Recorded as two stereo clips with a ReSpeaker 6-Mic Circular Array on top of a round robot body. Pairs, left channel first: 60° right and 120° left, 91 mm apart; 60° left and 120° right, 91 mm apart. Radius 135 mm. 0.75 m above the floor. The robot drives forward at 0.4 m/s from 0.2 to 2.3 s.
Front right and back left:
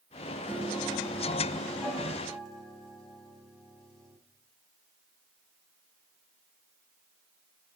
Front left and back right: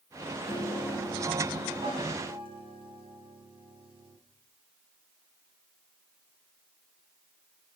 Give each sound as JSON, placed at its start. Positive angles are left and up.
{"t": 0.5, "sound": "a piano", "azimuth_deg": -140, "distance_m": 4.5}